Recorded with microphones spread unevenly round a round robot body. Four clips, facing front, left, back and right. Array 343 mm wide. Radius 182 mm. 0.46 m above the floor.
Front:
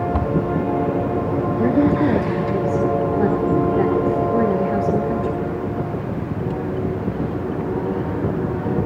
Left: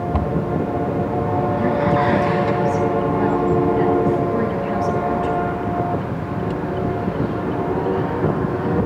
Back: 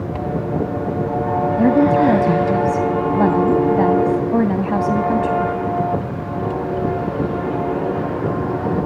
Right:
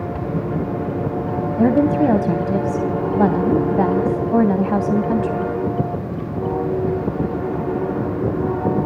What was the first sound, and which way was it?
A cupboard door, 75° left.